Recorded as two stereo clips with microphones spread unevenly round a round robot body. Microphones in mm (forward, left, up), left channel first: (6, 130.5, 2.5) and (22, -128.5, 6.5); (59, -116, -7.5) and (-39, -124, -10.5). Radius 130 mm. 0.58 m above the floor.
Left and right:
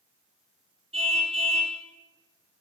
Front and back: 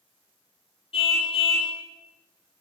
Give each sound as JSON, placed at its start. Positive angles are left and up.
{"t": 0.9, "sound": "a car horn", "azimuth_deg": -15, "distance_m": 6.5}